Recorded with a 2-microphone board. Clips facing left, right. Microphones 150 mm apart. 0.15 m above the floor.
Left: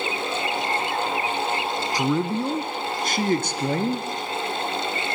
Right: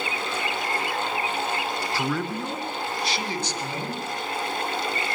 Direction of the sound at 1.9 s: 15° left (ahead or behind).